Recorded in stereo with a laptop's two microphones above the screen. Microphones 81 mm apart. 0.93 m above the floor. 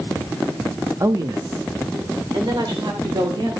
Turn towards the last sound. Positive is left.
turn(degrees=-70)  # may be behind; listen again after turning